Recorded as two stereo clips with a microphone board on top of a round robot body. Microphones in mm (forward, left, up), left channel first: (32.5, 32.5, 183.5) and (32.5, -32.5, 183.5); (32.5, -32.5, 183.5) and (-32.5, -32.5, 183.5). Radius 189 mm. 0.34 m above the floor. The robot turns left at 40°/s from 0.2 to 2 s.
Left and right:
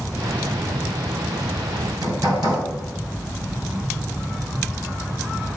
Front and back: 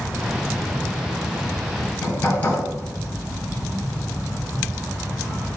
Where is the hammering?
60° right, 3 m; by 2.6 s 70° right, 3 m.